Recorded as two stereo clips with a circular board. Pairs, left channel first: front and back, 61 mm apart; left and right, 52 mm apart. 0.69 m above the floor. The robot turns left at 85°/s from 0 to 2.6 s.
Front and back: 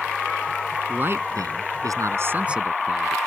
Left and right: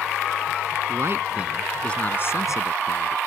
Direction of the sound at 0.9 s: 115° right.